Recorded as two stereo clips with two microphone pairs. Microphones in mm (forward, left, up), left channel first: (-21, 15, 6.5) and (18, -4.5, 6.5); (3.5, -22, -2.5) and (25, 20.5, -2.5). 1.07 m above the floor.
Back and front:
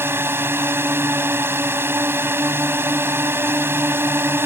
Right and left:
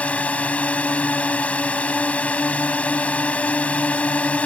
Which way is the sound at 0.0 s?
55° right.